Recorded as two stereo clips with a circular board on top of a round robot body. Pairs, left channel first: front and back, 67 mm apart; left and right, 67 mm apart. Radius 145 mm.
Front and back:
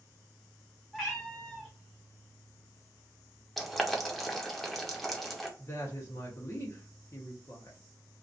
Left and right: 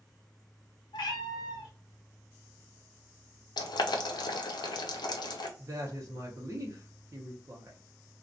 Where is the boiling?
90° left, 0.6 m.